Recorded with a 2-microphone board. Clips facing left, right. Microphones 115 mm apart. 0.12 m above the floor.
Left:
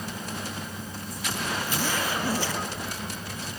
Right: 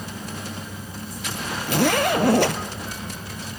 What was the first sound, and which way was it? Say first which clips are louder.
A zipper: right 13 dB; 65° right (ahead or behind).